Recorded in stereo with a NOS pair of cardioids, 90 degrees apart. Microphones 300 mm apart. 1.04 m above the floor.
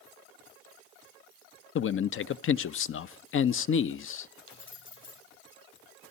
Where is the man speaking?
45° left, 0.8 m.